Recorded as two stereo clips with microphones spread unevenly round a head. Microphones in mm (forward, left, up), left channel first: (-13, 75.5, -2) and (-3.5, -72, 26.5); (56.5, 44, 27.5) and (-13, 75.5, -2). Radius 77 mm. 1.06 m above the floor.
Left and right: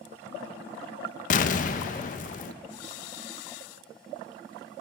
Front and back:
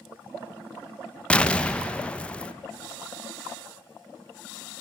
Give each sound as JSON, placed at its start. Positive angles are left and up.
{"t": 1.3, "sound": "an explosion", "azimuth_deg": 50, "distance_m": 0.5}